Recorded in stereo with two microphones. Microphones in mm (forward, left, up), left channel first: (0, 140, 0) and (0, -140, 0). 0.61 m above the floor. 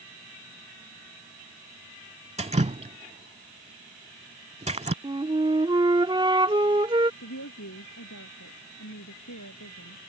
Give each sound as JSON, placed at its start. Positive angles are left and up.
{"t": 2.4, "sound": "dripping", "side_deg": -25}
{"t": 5.0, "sound": "a flute", "side_deg": -15}
{"t": 7.2, "sound": "a woman speaking", "side_deg": 80}